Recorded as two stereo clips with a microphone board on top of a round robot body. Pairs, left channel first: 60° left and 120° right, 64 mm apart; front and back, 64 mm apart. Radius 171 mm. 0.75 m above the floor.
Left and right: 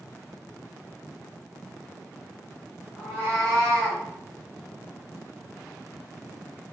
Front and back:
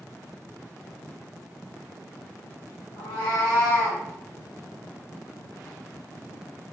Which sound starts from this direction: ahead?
A cat meowing, at 3.0 s.